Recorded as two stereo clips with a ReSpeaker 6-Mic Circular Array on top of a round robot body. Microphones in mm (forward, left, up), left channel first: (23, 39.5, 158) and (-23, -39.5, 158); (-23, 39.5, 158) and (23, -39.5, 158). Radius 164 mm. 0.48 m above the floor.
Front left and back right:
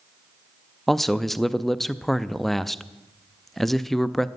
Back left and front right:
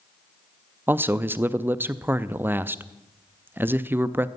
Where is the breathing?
No breathing in this recording.